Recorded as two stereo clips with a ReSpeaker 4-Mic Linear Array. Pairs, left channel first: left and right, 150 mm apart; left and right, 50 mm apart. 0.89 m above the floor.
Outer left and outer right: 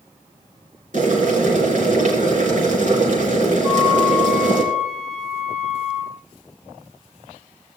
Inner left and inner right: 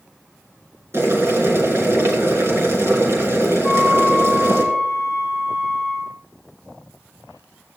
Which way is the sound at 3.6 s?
20° right (ahead or behind).